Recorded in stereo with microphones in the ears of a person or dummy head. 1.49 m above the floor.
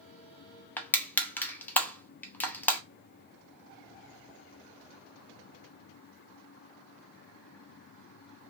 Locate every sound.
0.8 s crushing: 10° left (ahead or behind), 0.6 m